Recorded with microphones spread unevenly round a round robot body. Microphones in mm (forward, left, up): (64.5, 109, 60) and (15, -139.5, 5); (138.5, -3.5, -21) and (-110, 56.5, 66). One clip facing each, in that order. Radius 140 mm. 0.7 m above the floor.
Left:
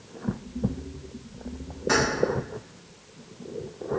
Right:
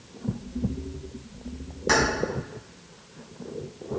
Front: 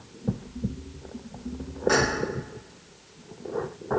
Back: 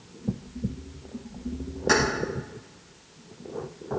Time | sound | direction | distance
1.9 | keys jangling | 135° right | 5 m